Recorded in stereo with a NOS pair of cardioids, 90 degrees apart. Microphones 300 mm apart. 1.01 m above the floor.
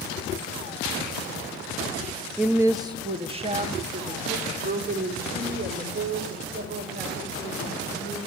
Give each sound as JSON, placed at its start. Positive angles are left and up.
{"t": 2.4, "sound": "a woman speaking", "azimuth_deg": -5, "distance_m": 0.8}